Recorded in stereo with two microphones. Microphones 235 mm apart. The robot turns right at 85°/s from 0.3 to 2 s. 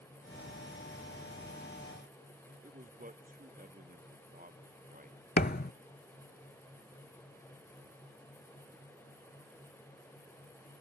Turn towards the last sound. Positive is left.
turn(degrees=40)  # may be behind; listen again after turning